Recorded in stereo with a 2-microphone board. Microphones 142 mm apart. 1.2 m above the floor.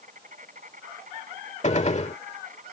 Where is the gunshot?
50° left (ahead or behind).